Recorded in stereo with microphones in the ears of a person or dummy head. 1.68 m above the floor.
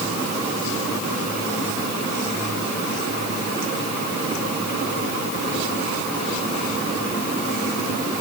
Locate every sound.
Only background noise.